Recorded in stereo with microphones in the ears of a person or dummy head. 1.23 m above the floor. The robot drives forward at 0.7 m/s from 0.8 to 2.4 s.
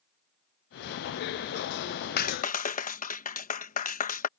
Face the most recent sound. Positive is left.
turn(degrees=40)  # may be behind; listen again after turning